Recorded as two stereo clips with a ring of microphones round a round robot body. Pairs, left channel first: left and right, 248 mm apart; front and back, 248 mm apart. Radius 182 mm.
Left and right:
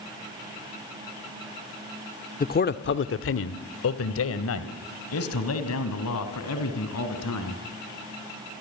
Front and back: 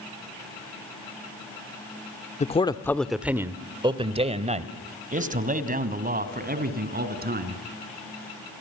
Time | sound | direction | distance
2.4 | a man speaking | 50° left | 1.0 m